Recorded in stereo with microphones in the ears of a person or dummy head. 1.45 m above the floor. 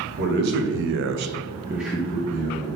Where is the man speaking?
55° right (ahead or behind), 1.3 m; by 2.7 s 20° left (ahead or behind), 1.3 m.